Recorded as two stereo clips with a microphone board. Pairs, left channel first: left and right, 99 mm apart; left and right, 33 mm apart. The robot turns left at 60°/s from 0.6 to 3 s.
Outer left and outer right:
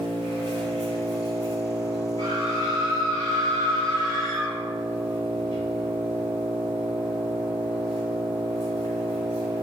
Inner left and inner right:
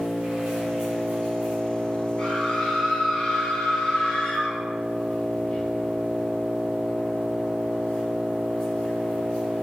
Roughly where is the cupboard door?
No cupboard door in this recording.